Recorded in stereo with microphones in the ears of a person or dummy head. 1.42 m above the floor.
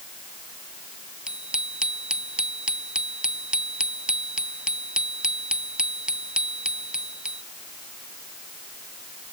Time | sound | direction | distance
1.3 | a bicycle bell | centre (ahead or behind) | ?